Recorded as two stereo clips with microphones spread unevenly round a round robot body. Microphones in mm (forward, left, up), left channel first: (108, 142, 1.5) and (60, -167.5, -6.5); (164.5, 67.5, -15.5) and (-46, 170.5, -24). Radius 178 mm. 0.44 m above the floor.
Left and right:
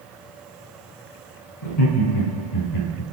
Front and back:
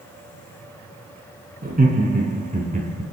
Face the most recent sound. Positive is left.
turn(degrees=95)